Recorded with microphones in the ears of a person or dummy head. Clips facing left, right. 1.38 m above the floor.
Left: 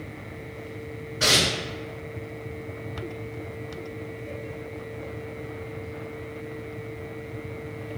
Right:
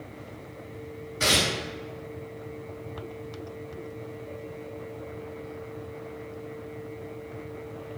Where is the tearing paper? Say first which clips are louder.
Left 1 dB; 50° right (ahead or behind), 1.8 m.